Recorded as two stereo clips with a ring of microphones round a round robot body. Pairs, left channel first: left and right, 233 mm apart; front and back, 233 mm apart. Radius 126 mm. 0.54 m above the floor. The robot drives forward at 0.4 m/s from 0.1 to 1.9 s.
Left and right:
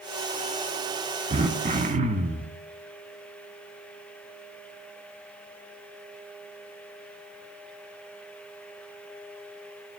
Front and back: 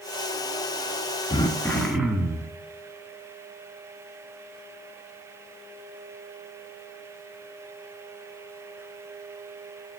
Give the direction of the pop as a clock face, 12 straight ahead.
No pop in this recording.